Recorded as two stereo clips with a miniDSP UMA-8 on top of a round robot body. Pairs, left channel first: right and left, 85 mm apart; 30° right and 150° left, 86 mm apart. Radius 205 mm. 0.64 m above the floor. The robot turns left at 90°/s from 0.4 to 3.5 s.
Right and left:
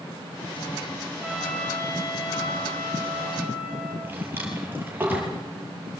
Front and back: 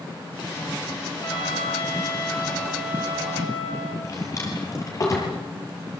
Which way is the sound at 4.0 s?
20° left.